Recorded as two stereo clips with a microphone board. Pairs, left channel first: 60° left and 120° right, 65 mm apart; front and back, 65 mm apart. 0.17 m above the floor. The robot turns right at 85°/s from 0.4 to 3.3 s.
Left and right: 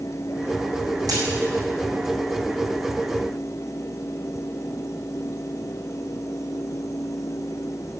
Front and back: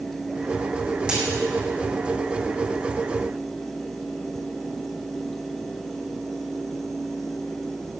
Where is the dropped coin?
105° right, 5 m; by 1.2 s 95° right, 5 m.